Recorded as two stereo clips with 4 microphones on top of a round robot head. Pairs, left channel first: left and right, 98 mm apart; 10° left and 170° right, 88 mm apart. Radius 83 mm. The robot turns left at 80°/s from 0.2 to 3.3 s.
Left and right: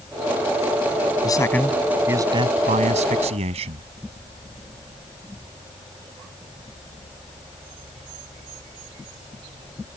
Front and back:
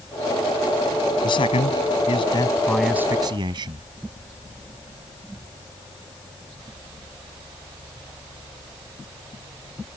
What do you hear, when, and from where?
1.2 s a man speaking: 40° left; by 3.9 s 125° right